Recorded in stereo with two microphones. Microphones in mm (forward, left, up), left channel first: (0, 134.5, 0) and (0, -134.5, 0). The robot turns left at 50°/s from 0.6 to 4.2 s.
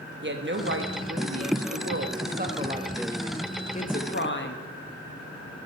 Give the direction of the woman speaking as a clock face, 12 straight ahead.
2 o'clock.